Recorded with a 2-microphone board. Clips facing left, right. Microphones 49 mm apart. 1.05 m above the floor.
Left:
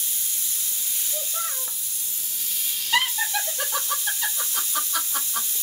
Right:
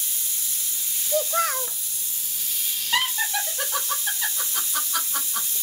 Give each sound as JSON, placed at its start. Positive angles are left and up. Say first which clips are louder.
{"t": 1.1, "sound": "a child speaking", "louder": "right 12 dB", "side_deg": -65, "distance_m": 0.6}
{"t": 2.9, "sound": "laughter", "louder": "left 1 dB", "side_deg": -15, "distance_m": 1.4}